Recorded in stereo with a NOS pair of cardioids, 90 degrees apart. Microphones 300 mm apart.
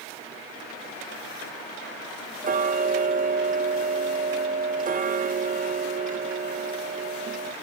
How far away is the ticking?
About 0.7 m.